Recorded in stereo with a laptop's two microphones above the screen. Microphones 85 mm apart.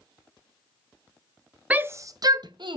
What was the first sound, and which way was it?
A shout, 15° right (ahead or behind).